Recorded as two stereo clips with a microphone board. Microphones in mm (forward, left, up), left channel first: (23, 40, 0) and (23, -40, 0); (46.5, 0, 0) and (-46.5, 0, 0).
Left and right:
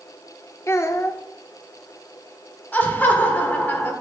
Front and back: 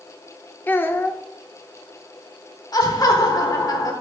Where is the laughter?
30° left, 1.3 m.